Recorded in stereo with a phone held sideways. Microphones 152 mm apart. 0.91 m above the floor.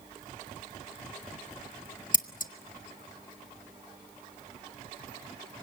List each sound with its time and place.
2.1 s scissors: 60° left (ahead or behind), 0.9 m